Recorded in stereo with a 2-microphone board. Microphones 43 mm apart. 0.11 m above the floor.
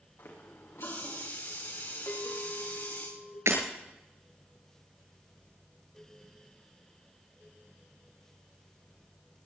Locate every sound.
0.2 s a running tap: 80° left, 6.5 m
2.1 s a clink: 75° left (ahead or behind), 5 m
3.5 s breaking glass: 85° right, 7.5 m